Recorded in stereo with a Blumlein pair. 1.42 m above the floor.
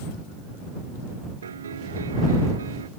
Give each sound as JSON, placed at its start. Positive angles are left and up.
{"t": 1.4, "sound": "a piano", "azimuth_deg": -70}